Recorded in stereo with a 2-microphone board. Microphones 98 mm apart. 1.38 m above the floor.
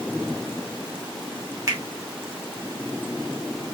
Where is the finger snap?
35° right (ahead or behind), 2.5 m.